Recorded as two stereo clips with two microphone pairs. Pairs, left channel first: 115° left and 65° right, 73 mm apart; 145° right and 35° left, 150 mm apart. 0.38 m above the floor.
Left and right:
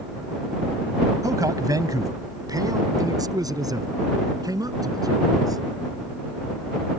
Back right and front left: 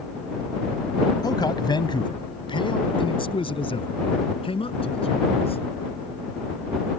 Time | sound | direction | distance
1.2 | a man speaking | 85° right | ?